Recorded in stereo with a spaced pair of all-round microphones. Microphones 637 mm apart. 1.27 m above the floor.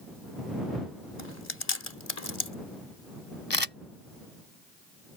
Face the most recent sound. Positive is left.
turn(degrees=40)  # may be behind; listen again after turning